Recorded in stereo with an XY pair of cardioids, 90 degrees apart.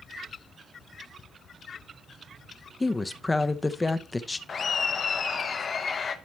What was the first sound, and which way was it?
A woman speaking, 20° left.